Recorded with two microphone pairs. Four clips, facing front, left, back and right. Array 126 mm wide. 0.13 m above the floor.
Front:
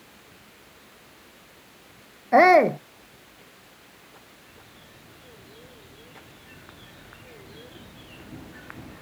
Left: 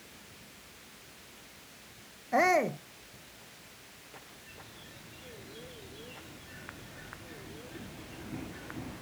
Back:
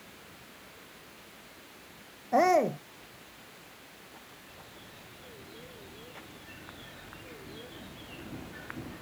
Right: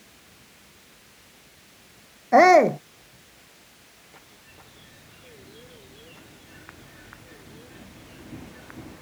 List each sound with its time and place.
2.3 s a shout: 55° right